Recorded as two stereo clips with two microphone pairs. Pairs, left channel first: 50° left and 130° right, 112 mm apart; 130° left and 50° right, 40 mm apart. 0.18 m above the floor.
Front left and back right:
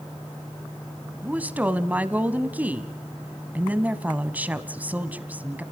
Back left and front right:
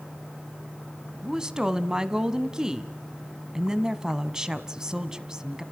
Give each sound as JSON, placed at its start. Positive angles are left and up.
{"t": 1.2, "sound": "a woman speaking", "azimuth_deg": -85, "distance_m": 1.0}